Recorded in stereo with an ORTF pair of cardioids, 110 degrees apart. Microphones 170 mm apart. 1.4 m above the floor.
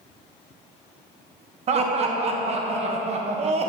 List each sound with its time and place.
1.7 s laughter: 40° right, 0.8 m